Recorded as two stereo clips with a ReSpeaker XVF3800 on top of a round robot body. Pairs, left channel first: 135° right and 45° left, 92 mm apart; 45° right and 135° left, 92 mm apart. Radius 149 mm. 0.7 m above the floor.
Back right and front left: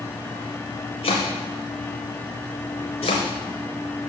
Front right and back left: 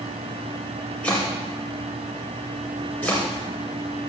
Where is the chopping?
120° right, 0.5 m.